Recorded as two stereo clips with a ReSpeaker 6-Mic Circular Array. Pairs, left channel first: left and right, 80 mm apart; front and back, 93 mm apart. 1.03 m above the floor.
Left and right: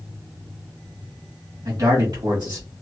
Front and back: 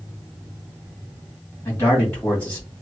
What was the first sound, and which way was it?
A man speaking, 55° right.